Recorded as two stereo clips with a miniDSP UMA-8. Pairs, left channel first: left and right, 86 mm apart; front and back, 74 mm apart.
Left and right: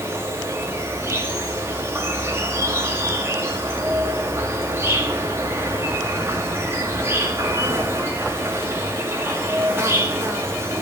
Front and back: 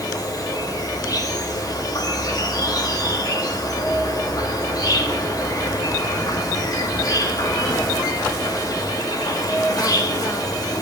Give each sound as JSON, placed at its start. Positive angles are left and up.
{"t": 0.0, "sound": "an insect", "azimuth_deg": -30, "distance_m": 1.6}